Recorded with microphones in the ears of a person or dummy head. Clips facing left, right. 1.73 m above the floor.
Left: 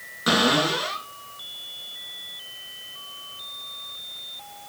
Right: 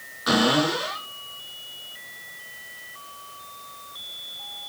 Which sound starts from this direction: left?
A cupboard door, at 0.3 s.